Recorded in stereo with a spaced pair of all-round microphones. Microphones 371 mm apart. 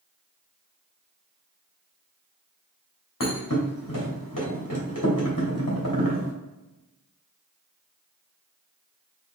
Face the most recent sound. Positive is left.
turn(degrees=55)  # may be behind; listen again after turning